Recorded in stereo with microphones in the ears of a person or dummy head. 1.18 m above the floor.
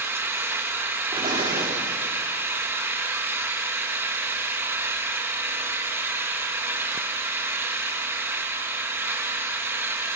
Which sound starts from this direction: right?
An explosion, at 1.1 s.